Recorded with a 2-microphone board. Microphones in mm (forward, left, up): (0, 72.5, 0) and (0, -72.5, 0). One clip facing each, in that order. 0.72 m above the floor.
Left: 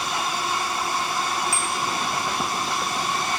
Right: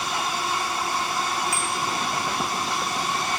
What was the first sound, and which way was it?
A bicycle bell, 30° left (ahead or behind).